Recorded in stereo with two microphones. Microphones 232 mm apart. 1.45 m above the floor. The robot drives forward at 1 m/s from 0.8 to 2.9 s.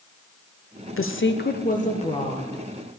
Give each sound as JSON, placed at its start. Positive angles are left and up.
{"t": 1.0, "sound": "a woman speaking", "side_deg": 65, "distance_m": 0.7}